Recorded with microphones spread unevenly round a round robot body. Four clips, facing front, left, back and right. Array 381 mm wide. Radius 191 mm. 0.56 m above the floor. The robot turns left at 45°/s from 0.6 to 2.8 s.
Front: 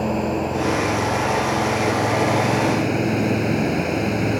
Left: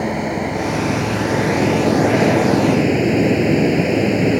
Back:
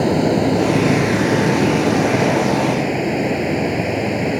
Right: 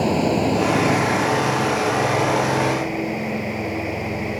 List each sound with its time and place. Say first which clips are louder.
0.0 s running water: right 2 dB, back 6 dB; 165° right; by 4.4 s 95° left